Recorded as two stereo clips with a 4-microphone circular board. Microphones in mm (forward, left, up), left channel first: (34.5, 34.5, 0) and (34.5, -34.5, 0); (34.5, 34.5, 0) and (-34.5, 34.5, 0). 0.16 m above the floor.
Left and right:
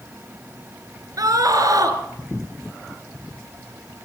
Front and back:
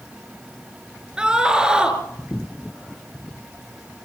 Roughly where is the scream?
Right.